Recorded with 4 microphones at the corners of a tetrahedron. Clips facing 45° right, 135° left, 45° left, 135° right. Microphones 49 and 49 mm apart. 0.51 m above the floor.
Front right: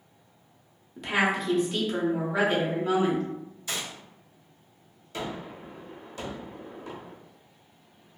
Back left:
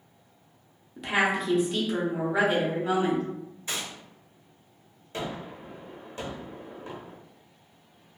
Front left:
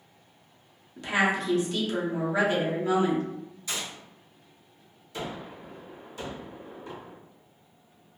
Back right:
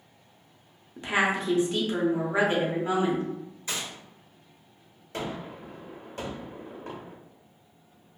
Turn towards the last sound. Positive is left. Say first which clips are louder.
# even, back right 2 dB
turn(degrees=-170)